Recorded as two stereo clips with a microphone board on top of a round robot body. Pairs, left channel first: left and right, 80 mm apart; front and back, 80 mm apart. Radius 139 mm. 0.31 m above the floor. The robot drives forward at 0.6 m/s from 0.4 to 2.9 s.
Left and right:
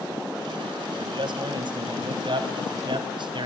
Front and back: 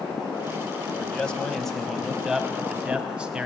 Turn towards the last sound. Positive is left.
turn(degrees=-100)